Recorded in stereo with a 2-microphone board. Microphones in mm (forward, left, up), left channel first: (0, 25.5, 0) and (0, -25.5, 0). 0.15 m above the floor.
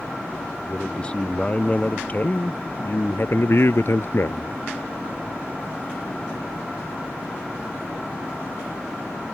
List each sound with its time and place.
0.6 s a man speaking: 20° left (ahead or behind); by 4.6 s 55° left (ahead or behind)